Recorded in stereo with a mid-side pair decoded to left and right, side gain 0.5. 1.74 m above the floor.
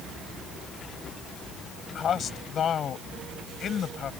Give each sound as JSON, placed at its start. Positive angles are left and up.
{"t": 1.9, "sound": "a man speaking", "azimuth_deg": 55}